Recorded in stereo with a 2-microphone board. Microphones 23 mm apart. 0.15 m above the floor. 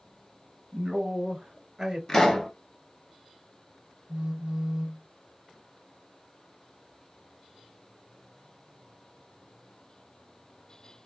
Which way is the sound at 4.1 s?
50° right (ahead or behind).